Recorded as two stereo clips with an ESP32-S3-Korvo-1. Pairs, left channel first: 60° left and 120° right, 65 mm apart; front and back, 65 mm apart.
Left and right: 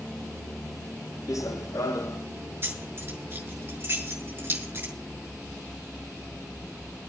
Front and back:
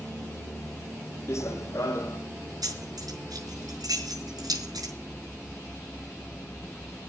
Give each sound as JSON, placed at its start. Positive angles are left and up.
{"t": 1.3, "sound": "running footsteps", "azimuth_deg": 35, "distance_m": 1.9}
{"t": 2.6, "sound": "keys jangling", "azimuth_deg": -175, "distance_m": 6.0}